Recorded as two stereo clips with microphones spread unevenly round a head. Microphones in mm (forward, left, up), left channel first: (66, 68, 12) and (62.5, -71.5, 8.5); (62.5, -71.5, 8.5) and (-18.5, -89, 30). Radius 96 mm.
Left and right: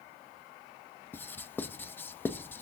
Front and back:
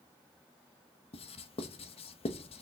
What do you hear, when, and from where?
1.1 s writing: 15° left, 0.5 m